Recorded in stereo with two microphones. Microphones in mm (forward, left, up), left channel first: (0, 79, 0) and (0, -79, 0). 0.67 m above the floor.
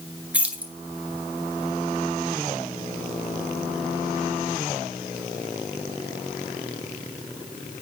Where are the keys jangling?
10° right (ahead or behind), 1.1 m.